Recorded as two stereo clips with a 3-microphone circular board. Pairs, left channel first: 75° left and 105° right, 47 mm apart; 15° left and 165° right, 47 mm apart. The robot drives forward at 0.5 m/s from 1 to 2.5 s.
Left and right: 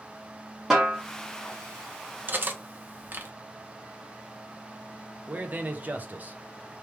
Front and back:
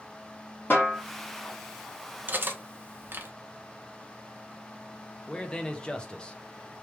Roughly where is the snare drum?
Ahead right.